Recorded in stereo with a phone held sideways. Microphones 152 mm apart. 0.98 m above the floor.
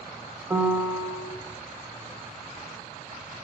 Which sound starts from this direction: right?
A piano, at 0.5 s.